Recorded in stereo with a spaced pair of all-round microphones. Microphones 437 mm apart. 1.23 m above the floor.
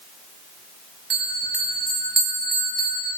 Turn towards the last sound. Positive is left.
turn(degrees=-65)  # may be behind; listen again after turning